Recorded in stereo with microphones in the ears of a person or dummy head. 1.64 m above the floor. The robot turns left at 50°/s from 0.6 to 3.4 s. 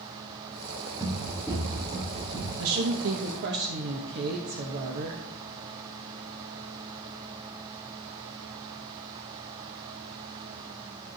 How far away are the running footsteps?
About 4.5 m.